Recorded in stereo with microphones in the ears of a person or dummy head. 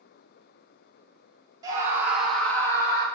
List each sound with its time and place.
1.6 s a scream: 25° right (ahead or behind), 1.3 m; by 3.0 s 25° left (ahead or behind), 1.3 m